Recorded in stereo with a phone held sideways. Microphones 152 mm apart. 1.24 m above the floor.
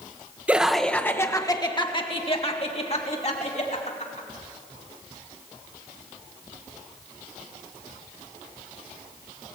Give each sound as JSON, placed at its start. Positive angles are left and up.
{"t": 0.5, "sound": "laughter", "side_deg": -10, "distance_m": 1.5}